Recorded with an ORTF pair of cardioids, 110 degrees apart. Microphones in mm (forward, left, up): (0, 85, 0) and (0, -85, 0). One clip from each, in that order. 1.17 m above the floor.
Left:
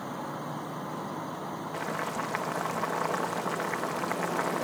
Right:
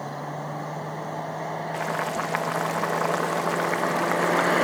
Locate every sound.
1.7 s boiling: 30° right